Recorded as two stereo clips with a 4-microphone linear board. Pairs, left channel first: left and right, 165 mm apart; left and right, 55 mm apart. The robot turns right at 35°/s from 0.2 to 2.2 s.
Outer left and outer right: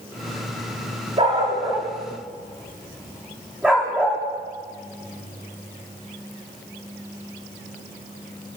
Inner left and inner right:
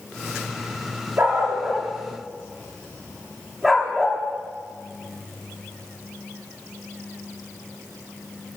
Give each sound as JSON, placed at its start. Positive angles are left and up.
{"t": 1.2, "sound": "a dog barking", "side_deg": -45, "distance_m": 8.5}